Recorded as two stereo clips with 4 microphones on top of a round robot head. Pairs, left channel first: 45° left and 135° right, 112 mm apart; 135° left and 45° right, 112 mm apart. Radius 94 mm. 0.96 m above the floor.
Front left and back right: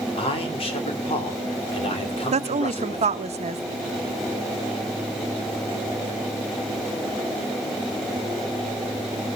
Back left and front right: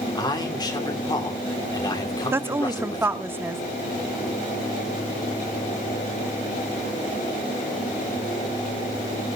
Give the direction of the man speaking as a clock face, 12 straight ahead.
9 o'clock.